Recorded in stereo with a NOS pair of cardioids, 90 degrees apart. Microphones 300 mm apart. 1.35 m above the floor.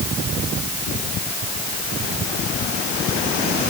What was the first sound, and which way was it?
Only background noise.